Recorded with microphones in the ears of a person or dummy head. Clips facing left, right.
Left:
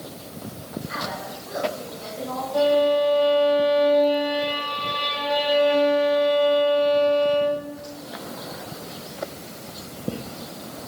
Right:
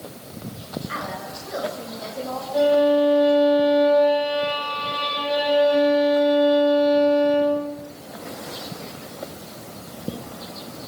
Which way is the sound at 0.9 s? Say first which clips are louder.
Even; 65° right (ahead or behind).